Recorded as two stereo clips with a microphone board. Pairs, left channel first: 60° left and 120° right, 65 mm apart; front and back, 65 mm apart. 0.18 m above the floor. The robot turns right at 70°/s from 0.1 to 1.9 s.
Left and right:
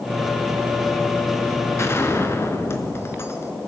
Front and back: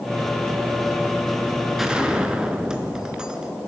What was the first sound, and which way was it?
A gunshot, 95° left.